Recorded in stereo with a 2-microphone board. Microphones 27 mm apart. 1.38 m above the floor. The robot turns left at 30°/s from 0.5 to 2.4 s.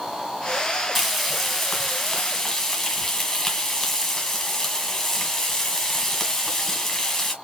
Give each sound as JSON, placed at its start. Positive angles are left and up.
{"t": 0.9, "sound": "frying", "azimuth_deg": -175, "distance_m": 1.4}